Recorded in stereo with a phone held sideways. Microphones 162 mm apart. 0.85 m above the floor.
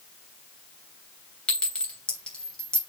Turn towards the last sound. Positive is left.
turn(degrees=5)  # may be behind; listen again after turning